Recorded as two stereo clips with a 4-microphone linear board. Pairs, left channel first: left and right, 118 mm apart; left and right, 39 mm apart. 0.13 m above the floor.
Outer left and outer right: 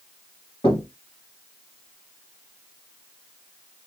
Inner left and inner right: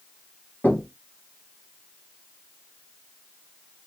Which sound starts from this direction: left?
Knocking, at 0.6 s.